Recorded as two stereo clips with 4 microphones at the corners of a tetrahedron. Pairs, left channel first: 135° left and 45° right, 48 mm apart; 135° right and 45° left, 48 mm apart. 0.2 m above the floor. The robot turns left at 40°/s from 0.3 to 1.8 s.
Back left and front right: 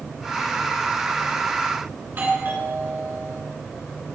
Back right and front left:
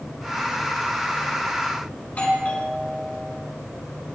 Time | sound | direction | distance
2.0 | a doorbell | 80° right | 3 m